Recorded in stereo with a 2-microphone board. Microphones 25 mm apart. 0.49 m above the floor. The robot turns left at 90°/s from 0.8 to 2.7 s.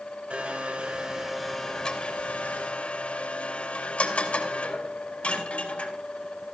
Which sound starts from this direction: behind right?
A blender, at 0.3 s.